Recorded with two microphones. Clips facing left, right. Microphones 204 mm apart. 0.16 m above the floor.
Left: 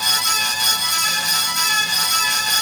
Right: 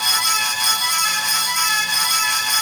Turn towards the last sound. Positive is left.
No sound to turn to.